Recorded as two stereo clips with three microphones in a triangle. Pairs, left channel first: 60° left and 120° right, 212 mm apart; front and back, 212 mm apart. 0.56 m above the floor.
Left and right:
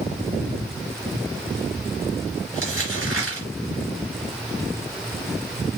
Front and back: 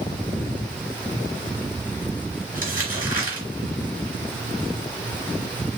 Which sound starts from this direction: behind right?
Crumpling, at 2.5 s.